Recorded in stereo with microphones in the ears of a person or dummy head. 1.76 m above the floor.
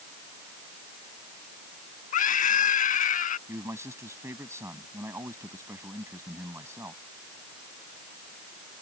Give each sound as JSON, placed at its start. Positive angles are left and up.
{"t": 2.1, "sound": "a scream", "side_deg": 50}
{"t": 3.5, "sound": "a man speaking", "side_deg": -15}